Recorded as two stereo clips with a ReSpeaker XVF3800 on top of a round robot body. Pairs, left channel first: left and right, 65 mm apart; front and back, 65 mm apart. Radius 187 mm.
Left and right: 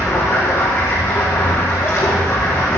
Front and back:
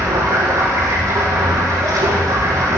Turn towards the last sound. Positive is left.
turn(degrees=145)